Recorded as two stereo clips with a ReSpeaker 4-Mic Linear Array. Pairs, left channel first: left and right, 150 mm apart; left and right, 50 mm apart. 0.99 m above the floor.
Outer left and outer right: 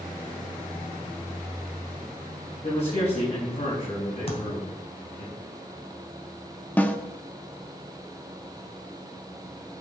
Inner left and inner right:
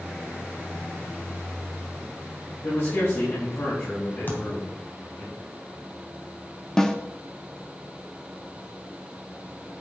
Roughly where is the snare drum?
Centre.